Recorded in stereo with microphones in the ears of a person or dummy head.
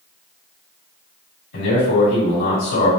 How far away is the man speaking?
About 1.7 m.